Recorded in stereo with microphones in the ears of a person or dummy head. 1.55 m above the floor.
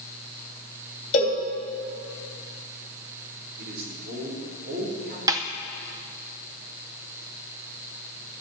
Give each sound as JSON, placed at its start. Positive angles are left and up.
{"t": 1.1, "sound": "a cowbell", "side_deg": 35, "distance_m": 2.5}
{"t": 3.6, "sound": "a man speaking", "side_deg": -55, "distance_m": 4.5}
{"t": 5.3, "sound": "a snare drum", "side_deg": -20, "distance_m": 0.6}